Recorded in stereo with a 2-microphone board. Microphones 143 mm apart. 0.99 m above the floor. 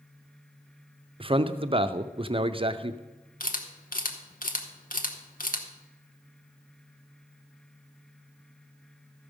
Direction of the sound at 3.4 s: 75° left (ahead or behind).